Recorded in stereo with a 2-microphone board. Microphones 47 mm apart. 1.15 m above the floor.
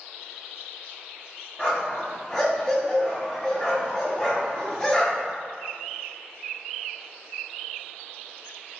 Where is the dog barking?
15° left (ahead or behind), 1.0 m.